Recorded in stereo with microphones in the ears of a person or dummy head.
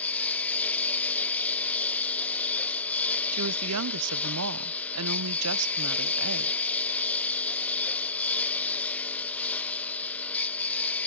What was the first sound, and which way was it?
A lawn mower, 10° left (ahead or behind).